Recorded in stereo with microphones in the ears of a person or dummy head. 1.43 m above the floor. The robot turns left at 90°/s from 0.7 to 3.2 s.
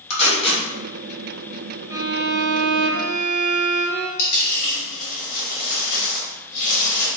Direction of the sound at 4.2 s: 50° left (ahead or behind).